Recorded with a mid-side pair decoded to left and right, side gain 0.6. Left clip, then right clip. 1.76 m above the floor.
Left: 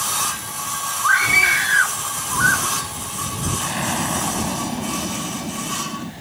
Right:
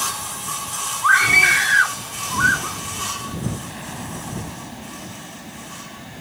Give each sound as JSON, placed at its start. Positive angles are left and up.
{"t": 1.0, "sound": "a scream", "azimuth_deg": -15}
{"t": 3.6, "sound": "an explosion", "azimuth_deg": 50}